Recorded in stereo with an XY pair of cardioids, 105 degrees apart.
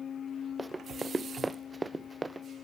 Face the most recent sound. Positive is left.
turn(degrees=-20)